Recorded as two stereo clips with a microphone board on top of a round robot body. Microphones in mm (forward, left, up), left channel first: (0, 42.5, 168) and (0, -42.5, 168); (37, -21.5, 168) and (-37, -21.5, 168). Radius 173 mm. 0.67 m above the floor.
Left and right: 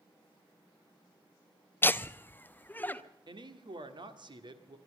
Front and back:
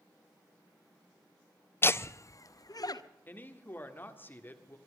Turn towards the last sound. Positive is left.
turn(degrees=-65)